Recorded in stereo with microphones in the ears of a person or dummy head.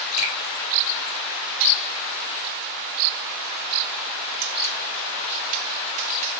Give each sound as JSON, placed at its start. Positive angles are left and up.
{"t": 0.2, "sound": "a finger snap", "side_deg": -60, "distance_m": 3.0}